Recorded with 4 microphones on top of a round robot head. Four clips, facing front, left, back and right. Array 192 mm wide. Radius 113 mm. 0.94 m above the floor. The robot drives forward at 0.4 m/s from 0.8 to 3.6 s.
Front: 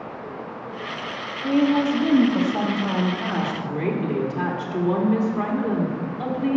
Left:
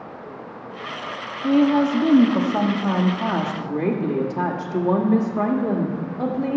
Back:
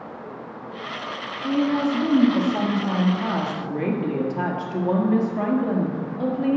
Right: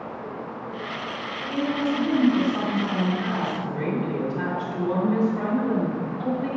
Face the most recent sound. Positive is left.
turn(degrees=110)